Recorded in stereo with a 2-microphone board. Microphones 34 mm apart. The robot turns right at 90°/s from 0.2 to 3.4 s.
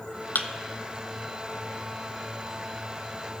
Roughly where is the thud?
Left.